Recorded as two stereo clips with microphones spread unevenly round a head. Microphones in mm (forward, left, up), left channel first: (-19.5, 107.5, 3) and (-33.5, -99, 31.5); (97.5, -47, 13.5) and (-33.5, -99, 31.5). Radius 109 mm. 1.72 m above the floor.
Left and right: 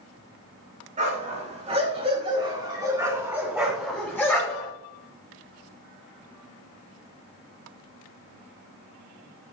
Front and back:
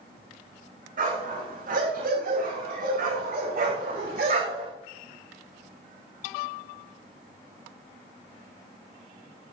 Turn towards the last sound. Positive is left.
turn(degrees=160)